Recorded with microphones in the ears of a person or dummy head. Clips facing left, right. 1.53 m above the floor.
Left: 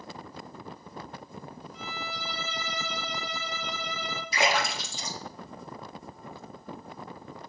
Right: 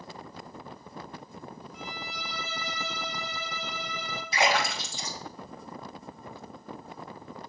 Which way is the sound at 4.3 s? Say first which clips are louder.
Right 1 dB; 60° left (ahead or behind).